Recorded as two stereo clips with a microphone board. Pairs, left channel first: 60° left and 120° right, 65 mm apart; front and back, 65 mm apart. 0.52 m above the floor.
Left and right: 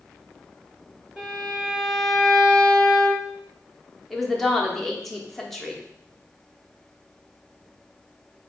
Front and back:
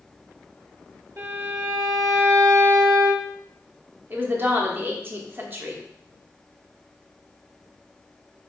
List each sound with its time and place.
1.2 s a violin: 150° left, 1.3 m
4.1 s a woman speaking: 145° left, 0.8 m